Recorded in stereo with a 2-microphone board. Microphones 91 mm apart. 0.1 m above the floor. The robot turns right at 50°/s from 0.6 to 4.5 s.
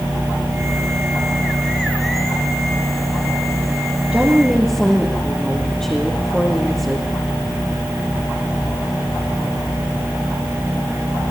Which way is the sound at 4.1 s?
10° right (ahead or behind).